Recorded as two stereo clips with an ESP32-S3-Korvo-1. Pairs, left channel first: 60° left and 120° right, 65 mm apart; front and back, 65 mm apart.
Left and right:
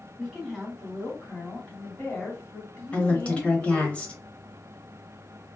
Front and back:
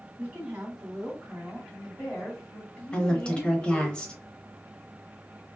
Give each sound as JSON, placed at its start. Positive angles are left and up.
{"t": 0.2, "sound": "a woman speaking", "azimuth_deg": 160, "distance_m": 1.5}
{"t": 2.9, "sound": "a woman speaking", "azimuth_deg": 45, "distance_m": 0.9}